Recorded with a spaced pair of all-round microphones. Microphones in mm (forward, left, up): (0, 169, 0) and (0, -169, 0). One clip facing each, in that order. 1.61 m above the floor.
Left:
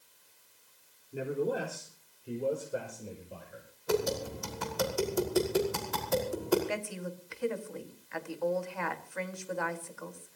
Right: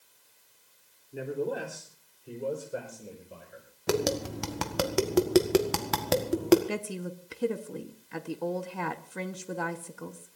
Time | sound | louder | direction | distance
1.1 | a man speaking | even | 5° left (ahead or behind) | 3.5 m
3.9 | tapping | right 2 dB | 85° right | 1.7 m
6.7 | a woman speaking | right 3 dB | 45° right (ahead or behind) | 1.4 m